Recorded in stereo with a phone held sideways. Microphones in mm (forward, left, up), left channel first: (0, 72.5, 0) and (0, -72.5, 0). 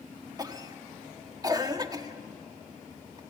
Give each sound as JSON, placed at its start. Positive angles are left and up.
{"t": 0.4, "sound": "a cough", "side_deg": -25, "distance_m": 1.3}